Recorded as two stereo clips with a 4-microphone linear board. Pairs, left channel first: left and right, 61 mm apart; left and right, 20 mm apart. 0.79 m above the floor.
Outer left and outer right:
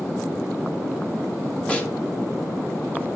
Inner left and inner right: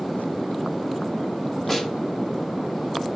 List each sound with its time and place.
1.7 s a snare drum: 20° left (ahead or behind), 1.1 m